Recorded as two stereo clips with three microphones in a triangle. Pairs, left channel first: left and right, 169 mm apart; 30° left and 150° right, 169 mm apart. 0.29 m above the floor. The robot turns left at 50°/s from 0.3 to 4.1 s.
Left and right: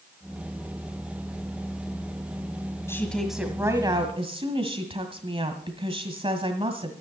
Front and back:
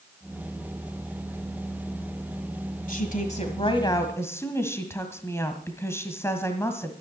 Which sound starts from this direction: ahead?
A woman speaking, at 2.9 s.